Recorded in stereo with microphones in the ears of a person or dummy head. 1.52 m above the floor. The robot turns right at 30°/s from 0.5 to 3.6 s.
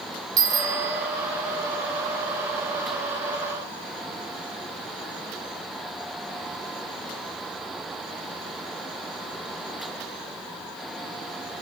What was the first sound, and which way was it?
A bicycle bell, 20° right (ahead or behind).